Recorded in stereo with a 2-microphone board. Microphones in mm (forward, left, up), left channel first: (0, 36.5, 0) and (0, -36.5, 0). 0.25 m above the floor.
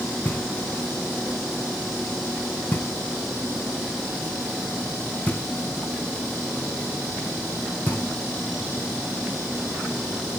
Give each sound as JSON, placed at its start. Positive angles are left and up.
{"t": 0.2, "sound": "knocking", "side_deg": 25, "distance_m": 2.0}